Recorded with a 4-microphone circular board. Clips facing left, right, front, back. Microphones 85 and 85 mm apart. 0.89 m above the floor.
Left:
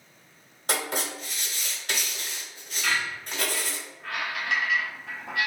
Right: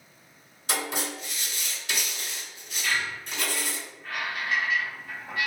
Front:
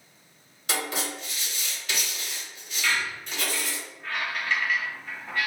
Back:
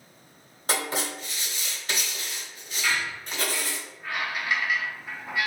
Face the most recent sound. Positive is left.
turn(degrees=100)